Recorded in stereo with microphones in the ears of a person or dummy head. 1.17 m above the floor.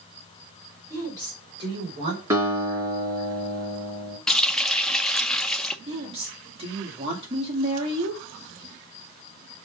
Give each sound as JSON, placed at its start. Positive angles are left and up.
{"t": 0.9, "sound": "a woman speaking", "side_deg": -15, "distance_m": 4.0}
{"t": 2.3, "sound": "a guitar", "side_deg": -15, "distance_m": 3.0}
{"t": 4.3, "sound": "a running tap", "side_deg": 5, "distance_m": 0.5}
{"t": 5.9, "sound": "a woman speaking", "side_deg": -30, "distance_m": 2.0}